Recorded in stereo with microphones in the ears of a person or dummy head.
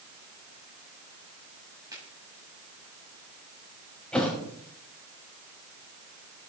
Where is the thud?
5° left (ahead or behind), 2.5 m.